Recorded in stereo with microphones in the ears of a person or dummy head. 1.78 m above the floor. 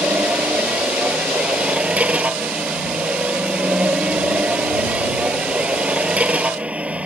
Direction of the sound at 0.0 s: 15° right (ahead or behind).